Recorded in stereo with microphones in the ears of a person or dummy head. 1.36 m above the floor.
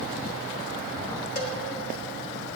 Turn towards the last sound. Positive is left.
turn(degrees=50)  # may be behind; listen again after turning